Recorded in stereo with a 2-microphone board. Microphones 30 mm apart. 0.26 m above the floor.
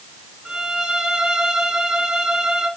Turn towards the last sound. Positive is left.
turn(degrees=-20)  # may be behind; listen again after turning